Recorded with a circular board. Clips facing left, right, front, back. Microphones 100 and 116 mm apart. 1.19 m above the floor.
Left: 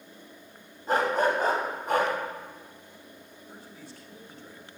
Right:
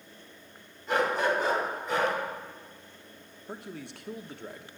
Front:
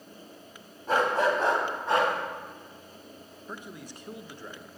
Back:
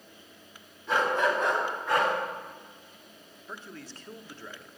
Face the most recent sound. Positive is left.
turn(degrees=-75)